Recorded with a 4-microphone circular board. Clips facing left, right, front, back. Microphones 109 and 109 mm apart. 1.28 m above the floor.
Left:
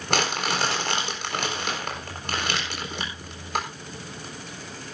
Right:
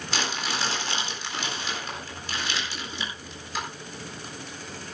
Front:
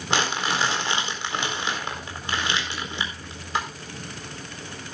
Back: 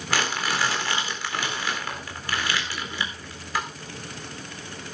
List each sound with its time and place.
0.1 s crumpling: 65° left, 4 m